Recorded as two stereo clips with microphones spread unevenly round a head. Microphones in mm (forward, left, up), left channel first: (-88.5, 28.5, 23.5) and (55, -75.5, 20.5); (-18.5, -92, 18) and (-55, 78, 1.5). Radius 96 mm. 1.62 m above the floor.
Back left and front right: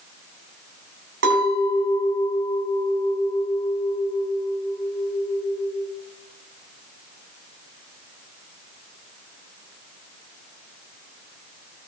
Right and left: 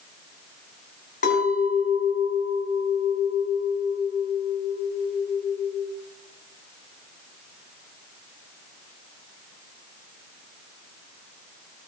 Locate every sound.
1.2 s a clink: 50° right, 3 m